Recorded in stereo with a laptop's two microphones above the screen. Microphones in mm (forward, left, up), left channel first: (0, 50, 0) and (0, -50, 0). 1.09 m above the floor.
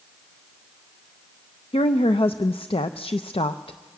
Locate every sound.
1.7 s a woman speaking: 65° left (ahead or behind), 0.5 m